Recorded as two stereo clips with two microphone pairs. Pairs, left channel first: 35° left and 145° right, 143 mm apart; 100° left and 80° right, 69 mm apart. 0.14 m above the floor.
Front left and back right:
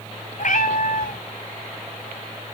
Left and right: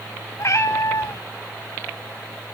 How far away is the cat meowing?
About 1.3 m.